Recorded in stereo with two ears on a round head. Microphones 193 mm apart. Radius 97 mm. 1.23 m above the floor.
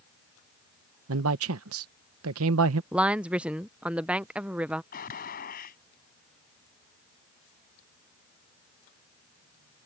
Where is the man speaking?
70° right (ahead or behind).